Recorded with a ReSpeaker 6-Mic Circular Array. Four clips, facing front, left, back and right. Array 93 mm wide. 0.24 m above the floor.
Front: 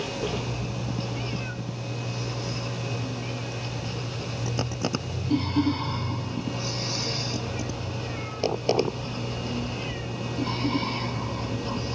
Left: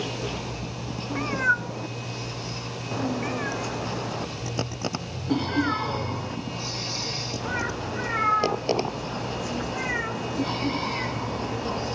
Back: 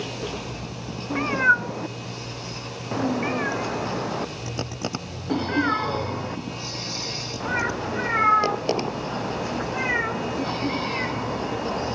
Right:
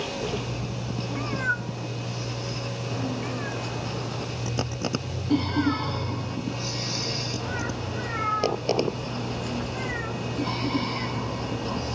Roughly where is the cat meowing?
Behind.